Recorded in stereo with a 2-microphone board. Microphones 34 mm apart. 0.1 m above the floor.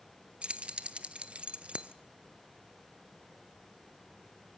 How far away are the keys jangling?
About 1.0 m.